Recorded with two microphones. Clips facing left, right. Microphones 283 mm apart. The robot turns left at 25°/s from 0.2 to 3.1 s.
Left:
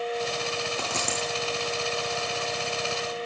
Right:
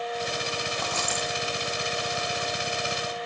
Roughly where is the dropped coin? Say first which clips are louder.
Left 1 dB; left.